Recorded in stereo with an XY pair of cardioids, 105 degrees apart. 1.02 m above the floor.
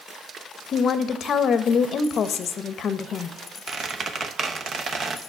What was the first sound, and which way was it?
A woman speaking, 55° left.